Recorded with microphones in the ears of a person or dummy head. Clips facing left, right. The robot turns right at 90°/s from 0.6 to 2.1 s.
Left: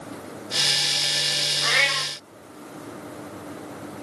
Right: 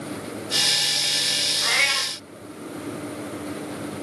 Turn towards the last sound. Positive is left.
turn(degrees=105)